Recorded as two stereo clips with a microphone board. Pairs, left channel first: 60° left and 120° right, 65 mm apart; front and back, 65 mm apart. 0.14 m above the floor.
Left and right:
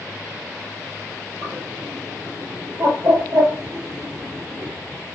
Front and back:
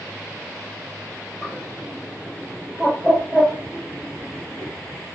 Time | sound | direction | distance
1.4 | a bird | 100° right | 2 m